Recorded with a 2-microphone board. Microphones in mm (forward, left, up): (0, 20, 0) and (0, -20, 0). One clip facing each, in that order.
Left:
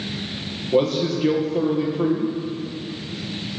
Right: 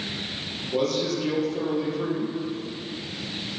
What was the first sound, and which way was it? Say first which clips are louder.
A man speaking: left 5 dB; 30° left (ahead or behind).